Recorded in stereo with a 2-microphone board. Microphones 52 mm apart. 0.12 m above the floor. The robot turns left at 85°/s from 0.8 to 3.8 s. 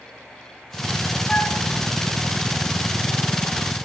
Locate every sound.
1.3 s a flute: 20° left (ahead or behind), 4 m; by 1.6 s 5° right (ahead or behind), 4 m